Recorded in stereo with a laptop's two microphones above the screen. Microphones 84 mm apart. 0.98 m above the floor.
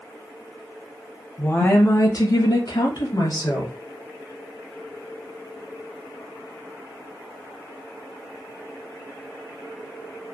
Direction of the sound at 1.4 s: 20° left (ahead or behind).